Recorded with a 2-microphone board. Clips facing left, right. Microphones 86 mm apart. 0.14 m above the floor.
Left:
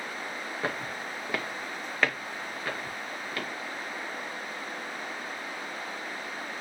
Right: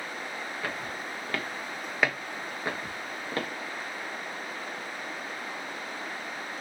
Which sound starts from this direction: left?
Footsteps, at 0.6 s.